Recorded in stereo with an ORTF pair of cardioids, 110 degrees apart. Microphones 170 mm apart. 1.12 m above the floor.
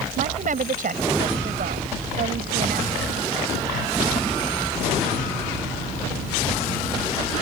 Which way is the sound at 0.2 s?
50° right.